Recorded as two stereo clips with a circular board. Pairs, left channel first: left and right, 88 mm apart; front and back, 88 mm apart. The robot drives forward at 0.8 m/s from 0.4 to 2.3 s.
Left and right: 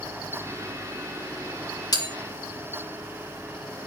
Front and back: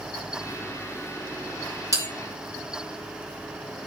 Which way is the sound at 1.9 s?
130° left.